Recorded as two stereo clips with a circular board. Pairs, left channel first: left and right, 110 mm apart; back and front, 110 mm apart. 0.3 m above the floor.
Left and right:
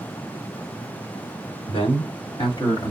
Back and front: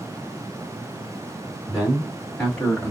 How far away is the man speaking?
About 2.5 m.